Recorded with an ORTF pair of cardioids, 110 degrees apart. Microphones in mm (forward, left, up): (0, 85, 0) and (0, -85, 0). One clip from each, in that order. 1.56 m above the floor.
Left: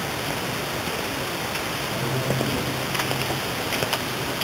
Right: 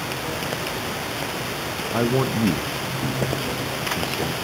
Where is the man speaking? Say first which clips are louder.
Right 6 dB; 60° right, 0.5 m.